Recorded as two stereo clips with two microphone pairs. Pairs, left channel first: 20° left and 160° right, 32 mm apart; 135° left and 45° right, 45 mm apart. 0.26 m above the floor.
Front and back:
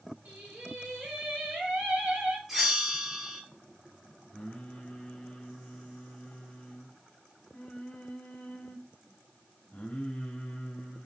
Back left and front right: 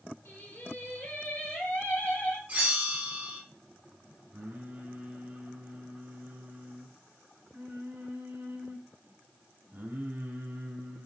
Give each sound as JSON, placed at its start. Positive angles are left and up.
{"t": 0.2, "sound": "singing", "azimuth_deg": 175, "distance_m": 3.5}
{"t": 2.5, "sound": "a bell", "azimuth_deg": -85, "distance_m": 2.5}
{"t": 4.3, "sound": "singing", "azimuth_deg": -20, "distance_m": 1.3}